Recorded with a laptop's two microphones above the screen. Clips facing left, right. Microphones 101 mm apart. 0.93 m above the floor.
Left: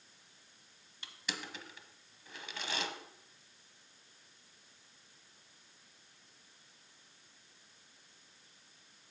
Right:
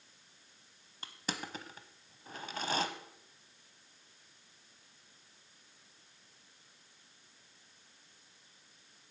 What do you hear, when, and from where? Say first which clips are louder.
1.0 s crushing: right 3 dB; 40° right (ahead or behind), 0.9 m